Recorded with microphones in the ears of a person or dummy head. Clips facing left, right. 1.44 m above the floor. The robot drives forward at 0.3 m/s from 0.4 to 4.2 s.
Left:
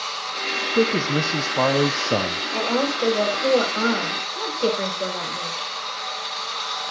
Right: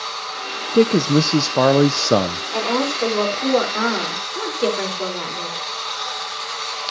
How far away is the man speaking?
About 0.7 m.